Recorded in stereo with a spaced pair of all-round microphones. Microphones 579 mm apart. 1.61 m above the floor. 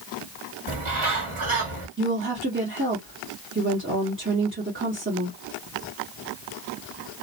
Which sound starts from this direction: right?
A bird, at 0.7 s.